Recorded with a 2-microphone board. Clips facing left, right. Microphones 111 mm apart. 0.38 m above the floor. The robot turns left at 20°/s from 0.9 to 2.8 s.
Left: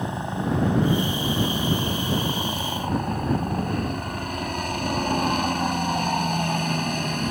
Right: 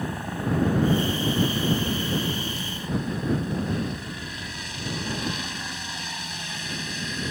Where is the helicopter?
155° left; by 7.3 s 115° left.